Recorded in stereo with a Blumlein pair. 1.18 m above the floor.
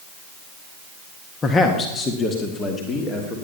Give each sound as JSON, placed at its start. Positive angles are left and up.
{"t": 1.4, "sound": "a man speaking", "azimuth_deg": 20, "distance_m": 1.4}